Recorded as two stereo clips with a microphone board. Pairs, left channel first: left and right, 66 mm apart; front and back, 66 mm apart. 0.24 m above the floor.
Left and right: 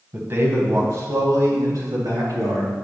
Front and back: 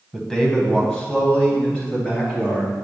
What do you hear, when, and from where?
0.1 s a man speaking: 80° right, 1.3 m; by 2.8 s 70° right, 4.5 m